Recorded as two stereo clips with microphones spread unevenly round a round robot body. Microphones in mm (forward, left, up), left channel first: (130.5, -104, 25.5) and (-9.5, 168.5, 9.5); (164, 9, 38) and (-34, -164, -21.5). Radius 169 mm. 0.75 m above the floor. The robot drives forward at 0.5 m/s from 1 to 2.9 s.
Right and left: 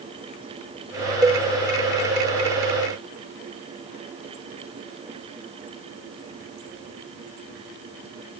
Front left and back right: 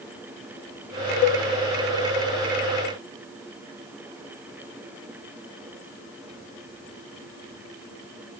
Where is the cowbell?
40° left, 0.6 m; by 1.4 s 50° left, 0.6 m.